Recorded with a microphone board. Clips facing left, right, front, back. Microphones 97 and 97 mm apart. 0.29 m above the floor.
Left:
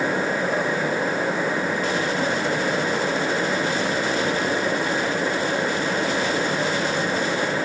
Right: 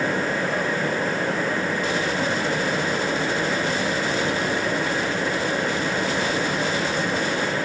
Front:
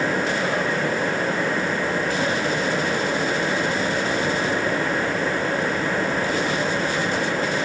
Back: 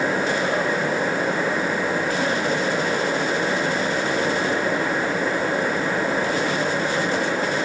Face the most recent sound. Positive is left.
No sound to turn to.